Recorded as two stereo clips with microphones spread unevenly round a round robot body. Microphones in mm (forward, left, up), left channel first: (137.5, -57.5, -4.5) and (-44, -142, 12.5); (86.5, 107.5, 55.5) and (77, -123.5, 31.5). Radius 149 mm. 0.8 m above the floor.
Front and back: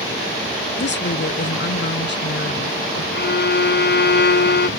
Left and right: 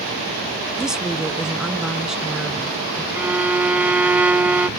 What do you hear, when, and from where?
0.8 s a woman speaking: 5° right
3.1 s a violin: 10° right